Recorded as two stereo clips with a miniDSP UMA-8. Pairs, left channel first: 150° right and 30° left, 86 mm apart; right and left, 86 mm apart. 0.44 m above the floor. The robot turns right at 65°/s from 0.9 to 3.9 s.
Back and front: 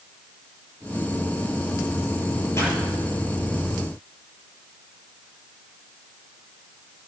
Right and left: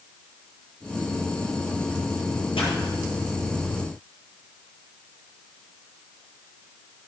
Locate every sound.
2.5 s a pop: 95° right, 6.5 m; by 2.7 s 85° right, 6.5 m